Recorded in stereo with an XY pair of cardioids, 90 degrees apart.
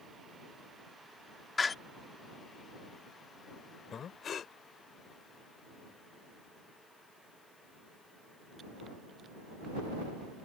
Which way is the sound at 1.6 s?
35° left.